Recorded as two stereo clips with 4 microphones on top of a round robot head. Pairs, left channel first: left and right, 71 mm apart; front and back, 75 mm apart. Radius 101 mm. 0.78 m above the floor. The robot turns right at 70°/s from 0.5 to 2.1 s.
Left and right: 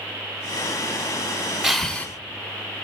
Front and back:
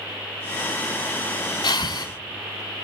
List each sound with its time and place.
1.6 s breathing: 5° right, 0.7 m; by 2.1 s 25° left, 0.7 m